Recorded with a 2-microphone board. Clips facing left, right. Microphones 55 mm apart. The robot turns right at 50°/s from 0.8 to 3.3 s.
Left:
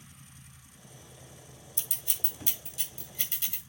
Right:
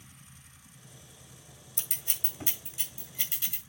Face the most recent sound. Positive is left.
turn(degrees=-15)  # may be behind; listen again after turning